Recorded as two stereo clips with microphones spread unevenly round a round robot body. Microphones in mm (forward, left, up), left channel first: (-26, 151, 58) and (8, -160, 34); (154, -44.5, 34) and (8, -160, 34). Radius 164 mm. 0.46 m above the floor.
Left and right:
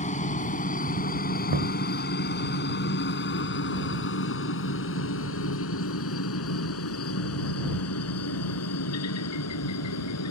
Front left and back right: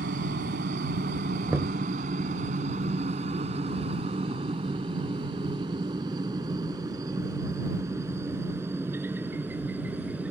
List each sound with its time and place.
0.0 s a helicopter: 165° left; by 10.3 s 135° left
1.5 s knocking: 65° right